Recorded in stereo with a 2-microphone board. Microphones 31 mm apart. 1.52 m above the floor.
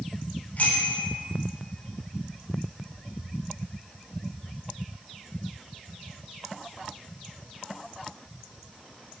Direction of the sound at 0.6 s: 65° left (ahead or behind).